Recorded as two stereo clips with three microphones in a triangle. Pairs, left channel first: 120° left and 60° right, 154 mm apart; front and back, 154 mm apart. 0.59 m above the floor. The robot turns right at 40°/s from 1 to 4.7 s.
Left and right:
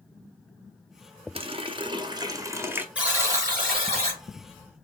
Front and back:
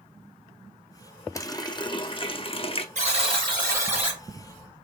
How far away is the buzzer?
About 3 m.